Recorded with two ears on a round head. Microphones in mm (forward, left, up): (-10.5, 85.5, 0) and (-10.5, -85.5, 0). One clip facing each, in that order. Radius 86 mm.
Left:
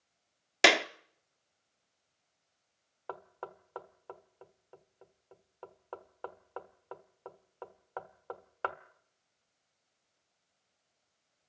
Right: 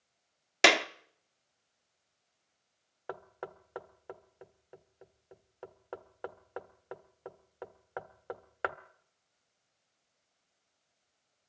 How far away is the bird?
No bird in this recording.